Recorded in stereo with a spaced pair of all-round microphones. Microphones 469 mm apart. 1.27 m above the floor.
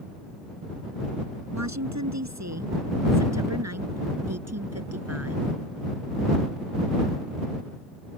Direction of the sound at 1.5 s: 35° right (ahead or behind).